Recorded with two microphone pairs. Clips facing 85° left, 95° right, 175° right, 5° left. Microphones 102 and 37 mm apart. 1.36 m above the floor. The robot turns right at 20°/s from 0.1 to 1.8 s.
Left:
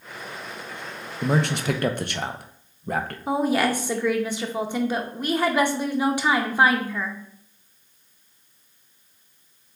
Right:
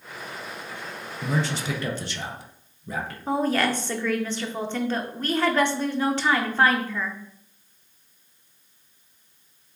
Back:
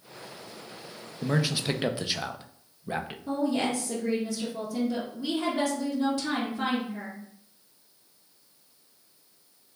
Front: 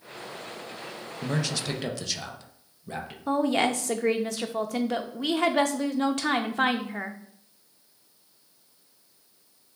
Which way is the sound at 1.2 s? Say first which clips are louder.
Left 4 dB, back 2 dB; 100° left.